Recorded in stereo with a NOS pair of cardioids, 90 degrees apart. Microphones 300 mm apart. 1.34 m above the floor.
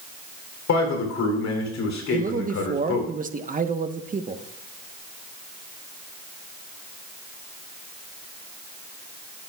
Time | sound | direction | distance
0.7 | a man speaking | 60° left | 3.5 m
2.1 | a man speaking | 25° right | 1.2 m